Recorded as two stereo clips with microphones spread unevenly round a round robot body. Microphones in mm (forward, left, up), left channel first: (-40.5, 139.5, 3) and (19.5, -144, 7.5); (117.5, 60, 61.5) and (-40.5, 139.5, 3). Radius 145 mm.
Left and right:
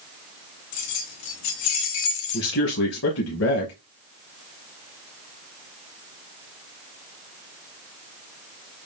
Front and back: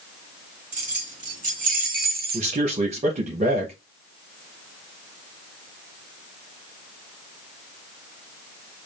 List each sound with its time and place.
0.7 s keys jangling: 110° left, 1.6 m; by 2.6 s 130° left, 0.6 m
2.3 s a man speaking: 135° left, 0.9 m